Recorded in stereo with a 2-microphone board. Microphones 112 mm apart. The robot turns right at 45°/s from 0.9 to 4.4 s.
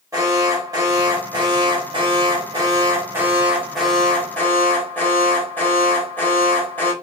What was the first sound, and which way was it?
An alarm, 130° right.